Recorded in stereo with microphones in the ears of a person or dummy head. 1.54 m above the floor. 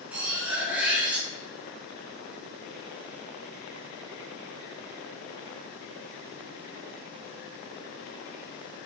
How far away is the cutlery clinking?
About 0.9 m.